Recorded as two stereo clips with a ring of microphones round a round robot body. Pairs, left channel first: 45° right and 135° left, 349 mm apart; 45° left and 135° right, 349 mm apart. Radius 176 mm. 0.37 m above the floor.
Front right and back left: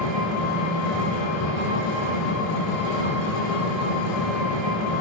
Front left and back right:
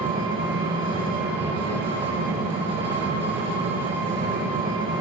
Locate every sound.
0.0 s an engine running: 55° right, 8.5 m